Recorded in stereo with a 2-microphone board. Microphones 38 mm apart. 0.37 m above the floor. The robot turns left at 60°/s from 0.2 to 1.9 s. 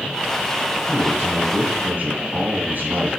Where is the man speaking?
50° right, 3.5 m; by 3.1 s 110° right, 3.5 m.